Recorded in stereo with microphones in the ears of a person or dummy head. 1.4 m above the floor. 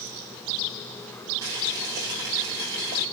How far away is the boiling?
About 3 m.